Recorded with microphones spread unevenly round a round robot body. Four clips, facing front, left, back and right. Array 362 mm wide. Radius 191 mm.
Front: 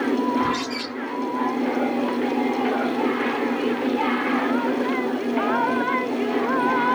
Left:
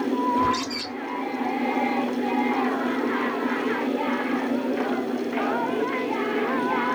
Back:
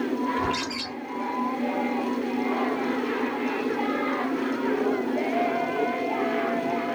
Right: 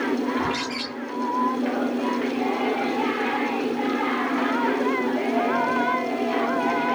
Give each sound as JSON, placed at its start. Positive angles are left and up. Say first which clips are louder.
{"t": 0.4, "sound": "a bird", "louder": "left 3 dB, front 4 dB", "azimuth_deg": 165, "distance_m": 1.8}